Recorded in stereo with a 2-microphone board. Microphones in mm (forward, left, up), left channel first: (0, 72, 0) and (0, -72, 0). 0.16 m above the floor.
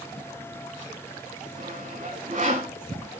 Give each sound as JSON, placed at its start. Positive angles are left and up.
{"t": 1.6, "sound": "sawing", "side_deg": -55, "distance_m": 8.5}